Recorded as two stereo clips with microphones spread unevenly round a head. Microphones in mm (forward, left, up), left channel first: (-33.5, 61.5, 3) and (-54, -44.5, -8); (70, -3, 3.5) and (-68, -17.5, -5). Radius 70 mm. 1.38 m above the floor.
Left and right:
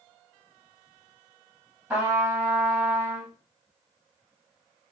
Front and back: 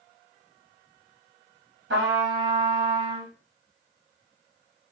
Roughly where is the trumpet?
Behind.